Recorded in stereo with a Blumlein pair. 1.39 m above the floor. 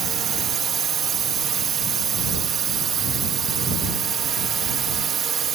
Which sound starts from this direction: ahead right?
A drone, at 0.0 s.